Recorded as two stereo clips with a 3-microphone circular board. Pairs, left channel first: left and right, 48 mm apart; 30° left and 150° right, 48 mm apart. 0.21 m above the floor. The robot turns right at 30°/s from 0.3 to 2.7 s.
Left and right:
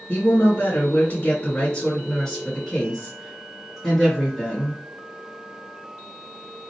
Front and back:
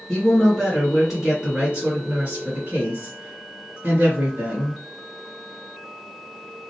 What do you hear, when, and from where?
0.1 s a woman speaking: 100° left, 2 m; by 4.8 s 170° left, 2 m